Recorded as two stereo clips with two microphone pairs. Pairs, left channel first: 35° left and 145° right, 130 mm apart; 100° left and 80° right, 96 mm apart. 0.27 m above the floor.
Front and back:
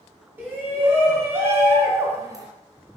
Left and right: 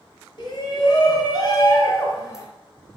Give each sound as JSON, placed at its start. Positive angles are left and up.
{"t": 0.4, "sound": "a shout", "azimuth_deg": 135, "distance_m": 4.0}